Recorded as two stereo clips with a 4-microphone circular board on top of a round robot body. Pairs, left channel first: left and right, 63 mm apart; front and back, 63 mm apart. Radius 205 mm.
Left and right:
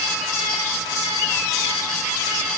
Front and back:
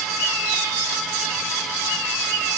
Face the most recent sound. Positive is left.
No sound to turn to.